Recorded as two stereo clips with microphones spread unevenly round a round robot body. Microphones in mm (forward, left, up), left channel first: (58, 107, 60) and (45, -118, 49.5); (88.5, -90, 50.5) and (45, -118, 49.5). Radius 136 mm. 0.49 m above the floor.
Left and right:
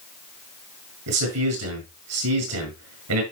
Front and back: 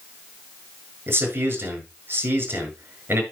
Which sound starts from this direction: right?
A man speaking, at 1.1 s.